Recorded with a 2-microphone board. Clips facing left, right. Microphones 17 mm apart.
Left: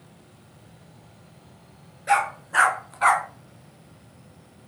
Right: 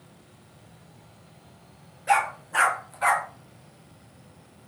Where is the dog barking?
15° left (ahead or behind), 3 m; by 3.3 s 35° left (ahead or behind), 1.5 m.